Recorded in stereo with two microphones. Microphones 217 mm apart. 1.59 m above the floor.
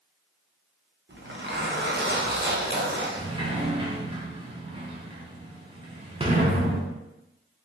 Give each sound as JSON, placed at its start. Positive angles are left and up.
{"t": 1.1, "sound": "a zipper", "side_deg": -50, "distance_m": 0.6}
{"t": 3.2, "sound": "a sliding door", "side_deg": -20, "distance_m": 0.5}